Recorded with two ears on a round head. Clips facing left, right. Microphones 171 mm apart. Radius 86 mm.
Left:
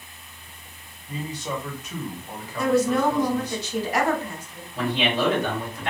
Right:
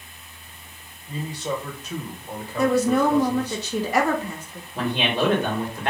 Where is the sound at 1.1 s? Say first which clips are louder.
Right 2 dB; 30° right (ahead or behind), 1.7 m.